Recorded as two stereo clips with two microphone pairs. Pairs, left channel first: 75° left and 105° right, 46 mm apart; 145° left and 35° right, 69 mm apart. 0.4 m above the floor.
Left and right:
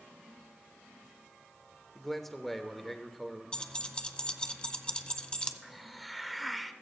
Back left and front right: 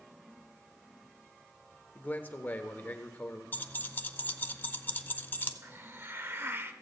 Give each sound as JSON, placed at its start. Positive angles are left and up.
{"t": 1.9, "sound": "a man speaking", "azimuth_deg": 150, "distance_m": 1.0}
{"t": 3.5, "sound": "keys jangling", "azimuth_deg": 115, "distance_m": 0.6}
{"t": 5.6, "sound": "a hiss", "azimuth_deg": -10, "distance_m": 0.6}